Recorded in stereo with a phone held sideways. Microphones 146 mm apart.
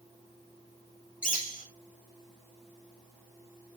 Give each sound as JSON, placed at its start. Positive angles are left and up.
{"t": 1.2, "sound": "a bird", "side_deg": 70, "distance_m": 2.0}